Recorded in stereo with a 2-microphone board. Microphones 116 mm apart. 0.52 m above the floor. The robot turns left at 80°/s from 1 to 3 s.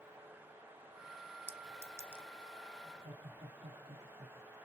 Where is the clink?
20° right (ahead or behind), 0.5 m.